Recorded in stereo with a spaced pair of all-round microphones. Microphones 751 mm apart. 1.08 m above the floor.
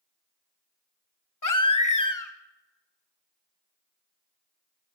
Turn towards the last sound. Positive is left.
turn(degrees=25)  # may be behind; listen again after turning